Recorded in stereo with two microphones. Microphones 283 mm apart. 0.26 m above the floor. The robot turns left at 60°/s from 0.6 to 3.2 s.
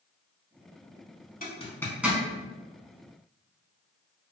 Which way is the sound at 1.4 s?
30° left (ahead or behind).